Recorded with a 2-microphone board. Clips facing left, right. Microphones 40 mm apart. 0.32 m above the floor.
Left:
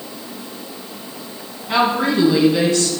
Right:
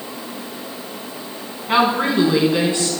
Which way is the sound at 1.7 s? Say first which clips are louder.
Even; 25° right (ahead or behind).